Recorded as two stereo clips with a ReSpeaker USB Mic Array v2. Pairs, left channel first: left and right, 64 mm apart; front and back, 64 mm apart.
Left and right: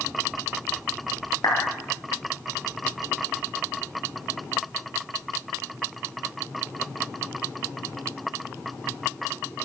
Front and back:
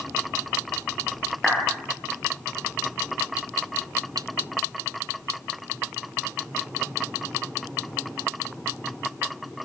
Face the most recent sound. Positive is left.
turn(degrees=85)